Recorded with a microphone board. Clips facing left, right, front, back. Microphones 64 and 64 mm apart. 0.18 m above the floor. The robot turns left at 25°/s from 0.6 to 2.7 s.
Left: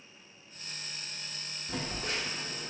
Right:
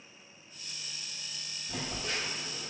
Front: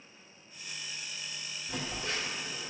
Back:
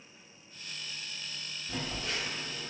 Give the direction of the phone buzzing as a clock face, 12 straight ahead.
10 o'clock.